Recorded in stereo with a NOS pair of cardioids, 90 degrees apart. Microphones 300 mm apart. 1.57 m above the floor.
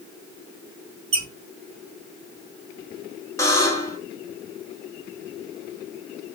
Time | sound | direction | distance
1.1 | a squeak | 45° right | 1.7 m
3.4 | a buzzer | 10° left | 1.0 m